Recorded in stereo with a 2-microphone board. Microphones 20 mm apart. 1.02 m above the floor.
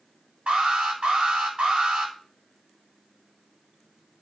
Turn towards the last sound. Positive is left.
turn(degrees=-90)